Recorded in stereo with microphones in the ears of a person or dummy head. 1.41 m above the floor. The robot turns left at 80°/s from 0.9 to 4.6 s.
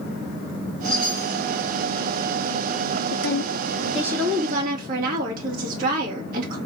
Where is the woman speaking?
65° left, 2.5 m; by 6.6 s 55° right, 2.5 m.